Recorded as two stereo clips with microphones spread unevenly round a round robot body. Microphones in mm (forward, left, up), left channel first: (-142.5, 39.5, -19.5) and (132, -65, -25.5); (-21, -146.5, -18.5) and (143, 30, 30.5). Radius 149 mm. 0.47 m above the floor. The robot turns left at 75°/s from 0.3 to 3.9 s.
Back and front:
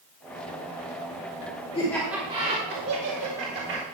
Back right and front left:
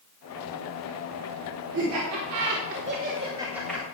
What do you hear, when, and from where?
1.7 s laughter: 90° left, 1.9 m; by 3.8 s 65° right, 1.9 m